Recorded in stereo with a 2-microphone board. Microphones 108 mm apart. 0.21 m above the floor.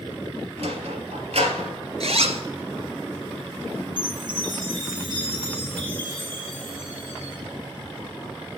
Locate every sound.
0.6 s a sliding door: 70° right (ahead or behind), 2 m
2.0 s a zipper: 75° right (ahead or behind), 1.0 m
4.0 s a chime: 45° right (ahead or behind), 4.5 m